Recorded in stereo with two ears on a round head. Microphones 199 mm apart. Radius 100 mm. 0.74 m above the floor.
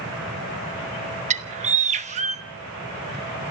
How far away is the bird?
About 1.1 m.